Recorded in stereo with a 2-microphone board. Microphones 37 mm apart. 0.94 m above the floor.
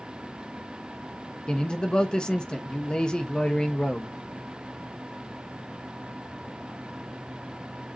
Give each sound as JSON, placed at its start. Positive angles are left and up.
{"t": 1.5, "sound": "a man speaking", "side_deg": 25, "distance_m": 0.9}